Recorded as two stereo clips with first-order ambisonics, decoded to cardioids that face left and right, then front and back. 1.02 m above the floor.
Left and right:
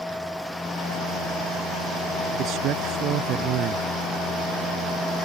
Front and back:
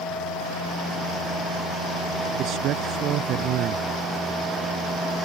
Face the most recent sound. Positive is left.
turn(degrees=-135)